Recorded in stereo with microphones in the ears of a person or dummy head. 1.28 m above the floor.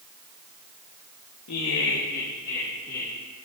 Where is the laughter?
80° left, 1.0 m; by 3.1 s 15° left (ahead or behind), 2 m.